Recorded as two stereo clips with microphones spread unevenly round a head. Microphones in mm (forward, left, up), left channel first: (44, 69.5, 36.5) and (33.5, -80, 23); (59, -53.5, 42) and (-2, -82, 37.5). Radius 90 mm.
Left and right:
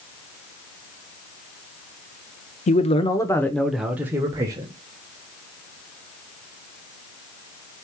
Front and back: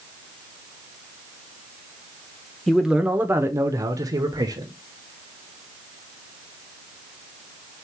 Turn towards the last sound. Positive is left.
turn(degrees=-155)